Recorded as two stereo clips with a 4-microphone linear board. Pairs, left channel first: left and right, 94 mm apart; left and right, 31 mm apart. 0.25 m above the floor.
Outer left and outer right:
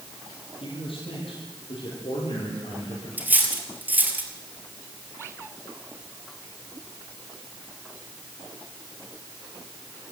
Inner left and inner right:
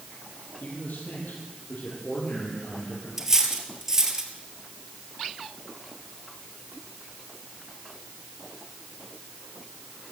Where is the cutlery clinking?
20° right (ahead or behind), 3 m.